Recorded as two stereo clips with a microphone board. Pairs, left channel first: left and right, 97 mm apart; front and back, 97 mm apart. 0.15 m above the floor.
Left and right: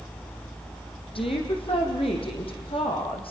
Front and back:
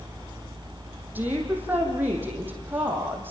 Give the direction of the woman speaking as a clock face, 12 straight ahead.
8 o'clock.